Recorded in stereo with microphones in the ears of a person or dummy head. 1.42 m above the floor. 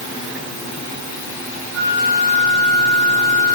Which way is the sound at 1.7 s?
70° right (ahead or behind).